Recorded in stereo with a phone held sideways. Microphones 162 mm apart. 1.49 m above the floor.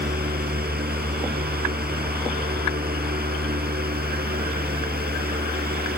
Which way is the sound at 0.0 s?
75° right (ahead or behind).